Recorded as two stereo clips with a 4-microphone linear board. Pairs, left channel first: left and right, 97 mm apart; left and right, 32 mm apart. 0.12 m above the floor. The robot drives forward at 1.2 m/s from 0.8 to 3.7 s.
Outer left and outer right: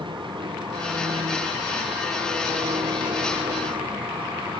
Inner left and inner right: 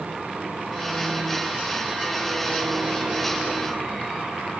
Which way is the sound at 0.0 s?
55° right (ahead or behind).